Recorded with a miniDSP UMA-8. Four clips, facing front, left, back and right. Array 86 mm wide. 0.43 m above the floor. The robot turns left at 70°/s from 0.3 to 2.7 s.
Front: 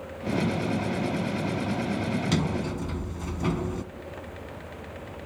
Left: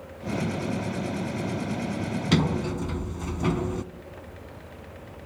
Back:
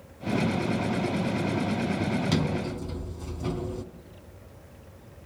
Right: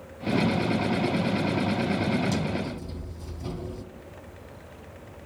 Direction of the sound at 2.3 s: 85° left.